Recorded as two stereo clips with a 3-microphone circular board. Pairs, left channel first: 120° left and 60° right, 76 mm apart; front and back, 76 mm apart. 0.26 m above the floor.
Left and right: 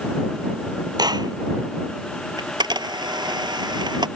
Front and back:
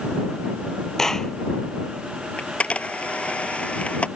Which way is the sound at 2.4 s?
75° right.